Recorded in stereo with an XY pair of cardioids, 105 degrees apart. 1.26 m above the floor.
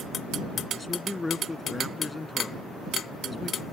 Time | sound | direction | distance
0.7 | a man speaking | 20° left | ?